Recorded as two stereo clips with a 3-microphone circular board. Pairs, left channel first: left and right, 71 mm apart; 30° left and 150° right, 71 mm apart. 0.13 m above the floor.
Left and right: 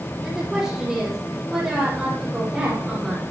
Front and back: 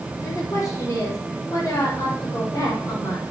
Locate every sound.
0.2 s a woman speaking: 10° right, 6 m